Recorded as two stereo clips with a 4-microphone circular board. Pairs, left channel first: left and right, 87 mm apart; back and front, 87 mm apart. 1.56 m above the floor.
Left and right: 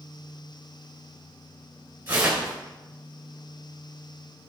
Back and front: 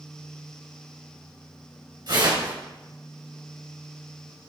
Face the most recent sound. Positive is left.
turn(degrees=-25)